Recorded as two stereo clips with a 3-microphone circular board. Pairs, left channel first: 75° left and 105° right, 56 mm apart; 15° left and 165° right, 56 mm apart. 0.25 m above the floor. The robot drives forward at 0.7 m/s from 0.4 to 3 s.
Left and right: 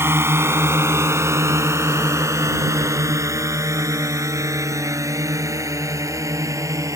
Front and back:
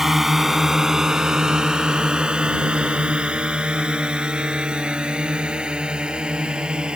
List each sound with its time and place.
0.0 s a drone: 85° right; by 7.0 s 95° right